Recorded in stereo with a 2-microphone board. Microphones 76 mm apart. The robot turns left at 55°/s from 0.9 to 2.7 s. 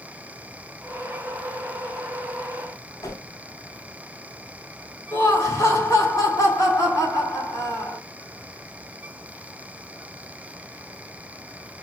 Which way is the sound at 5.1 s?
45° left (ahead or behind).